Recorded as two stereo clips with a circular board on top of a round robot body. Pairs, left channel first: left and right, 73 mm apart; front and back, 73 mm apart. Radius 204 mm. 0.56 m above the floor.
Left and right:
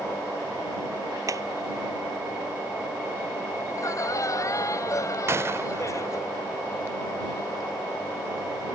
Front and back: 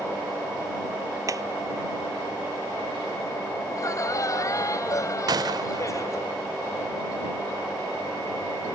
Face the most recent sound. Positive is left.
turn(degrees=-150)